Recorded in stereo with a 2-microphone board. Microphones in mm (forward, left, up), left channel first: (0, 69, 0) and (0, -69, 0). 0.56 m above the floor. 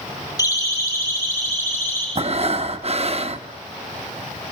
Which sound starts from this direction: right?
Breathing, at 2.1 s.